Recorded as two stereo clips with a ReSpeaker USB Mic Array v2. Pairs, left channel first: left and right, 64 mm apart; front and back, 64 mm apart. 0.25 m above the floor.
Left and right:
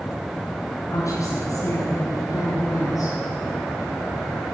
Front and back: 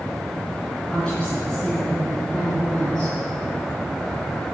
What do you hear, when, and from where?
0.9 s a woman speaking: 75° left, 3.5 m; by 3.1 s 80° left, 4.5 m